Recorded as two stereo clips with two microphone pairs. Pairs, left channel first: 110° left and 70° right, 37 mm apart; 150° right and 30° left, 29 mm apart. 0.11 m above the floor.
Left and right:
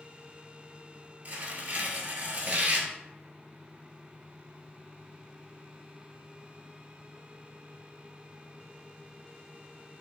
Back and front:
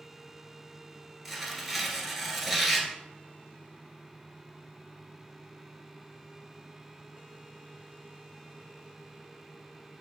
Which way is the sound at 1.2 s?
60° right.